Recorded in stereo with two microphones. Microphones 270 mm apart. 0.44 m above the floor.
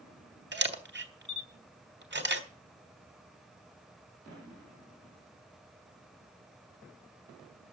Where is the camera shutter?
40° right (ahead or behind), 1.4 m.